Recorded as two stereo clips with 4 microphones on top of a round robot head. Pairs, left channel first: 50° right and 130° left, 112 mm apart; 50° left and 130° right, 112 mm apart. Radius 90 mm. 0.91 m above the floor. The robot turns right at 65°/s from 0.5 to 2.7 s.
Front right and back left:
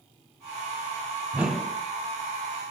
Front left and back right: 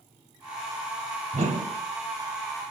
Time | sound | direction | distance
1.3 | a whoosh | 160° right | 2.5 m